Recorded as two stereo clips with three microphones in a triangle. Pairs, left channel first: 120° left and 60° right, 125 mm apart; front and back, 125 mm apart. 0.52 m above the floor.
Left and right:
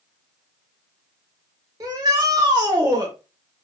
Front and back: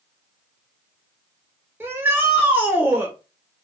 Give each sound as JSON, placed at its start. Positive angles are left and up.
{"t": 1.8, "sound": "a shout", "azimuth_deg": -110, "distance_m": 1.9}